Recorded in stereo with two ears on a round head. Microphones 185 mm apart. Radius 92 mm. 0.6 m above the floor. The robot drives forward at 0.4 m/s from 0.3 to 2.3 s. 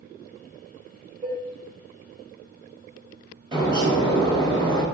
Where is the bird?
25° right (ahead or behind), 1.3 m.